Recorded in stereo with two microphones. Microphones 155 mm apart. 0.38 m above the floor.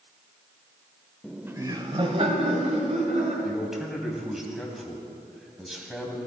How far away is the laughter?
About 0.9 m.